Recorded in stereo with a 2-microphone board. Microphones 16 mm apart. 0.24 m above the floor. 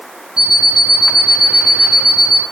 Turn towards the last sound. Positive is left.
turn(degrees=-75)  # may be behind; listen again after turning